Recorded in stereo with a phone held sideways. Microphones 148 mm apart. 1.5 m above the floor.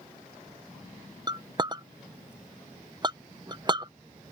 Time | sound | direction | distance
1.3 | a clink | 30° right (ahead or behind) | ?